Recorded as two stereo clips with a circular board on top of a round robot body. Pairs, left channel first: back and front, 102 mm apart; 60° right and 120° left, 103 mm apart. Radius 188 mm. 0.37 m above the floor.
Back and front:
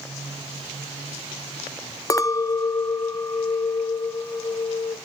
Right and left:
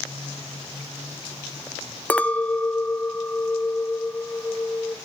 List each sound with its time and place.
2.1 s a clink: 130° right, 1.0 m